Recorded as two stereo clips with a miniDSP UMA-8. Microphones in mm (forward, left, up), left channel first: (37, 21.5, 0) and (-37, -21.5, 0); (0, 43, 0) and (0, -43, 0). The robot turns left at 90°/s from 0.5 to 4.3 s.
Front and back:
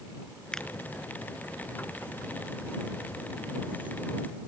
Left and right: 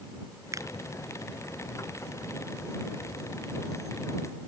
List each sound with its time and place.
0.5 s a finger snap: 50° right; by 0.7 s 60° right